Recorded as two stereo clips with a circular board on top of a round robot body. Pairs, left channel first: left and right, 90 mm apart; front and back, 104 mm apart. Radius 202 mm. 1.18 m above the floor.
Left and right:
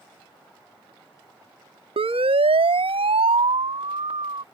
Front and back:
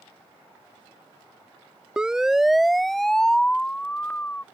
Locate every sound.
2.0 s a siren: 95° right; by 4.4 s 75° right